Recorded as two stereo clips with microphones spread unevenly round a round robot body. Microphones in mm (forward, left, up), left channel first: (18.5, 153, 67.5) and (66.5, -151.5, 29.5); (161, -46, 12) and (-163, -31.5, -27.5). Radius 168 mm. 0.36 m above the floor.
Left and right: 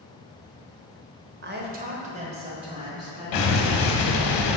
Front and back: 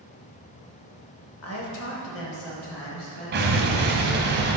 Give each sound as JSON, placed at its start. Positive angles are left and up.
{"t": 1.4, "sound": "a woman speaking", "azimuth_deg": -45, "distance_m": 1.2}
{"t": 3.3, "sound": "an explosion", "azimuth_deg": 120, "distance_m": 0.9}